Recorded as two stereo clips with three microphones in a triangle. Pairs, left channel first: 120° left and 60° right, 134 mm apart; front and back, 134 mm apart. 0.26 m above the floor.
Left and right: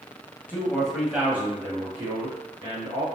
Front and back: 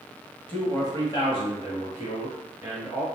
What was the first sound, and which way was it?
A man speaking, 65° left.